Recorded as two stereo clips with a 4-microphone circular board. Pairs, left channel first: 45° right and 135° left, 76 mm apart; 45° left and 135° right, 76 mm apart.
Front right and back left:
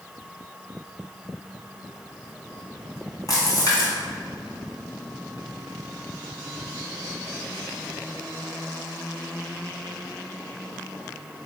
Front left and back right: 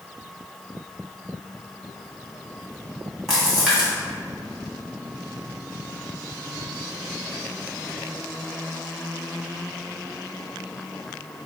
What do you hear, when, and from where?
3.3 s a splash: 50° right, 1.8 m